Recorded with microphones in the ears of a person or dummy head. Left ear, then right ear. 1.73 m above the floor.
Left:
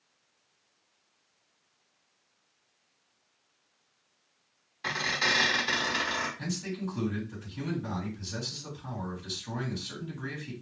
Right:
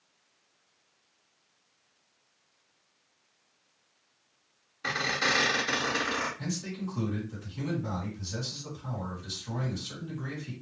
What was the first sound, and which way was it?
A squeak, 25° left (ahead or behind).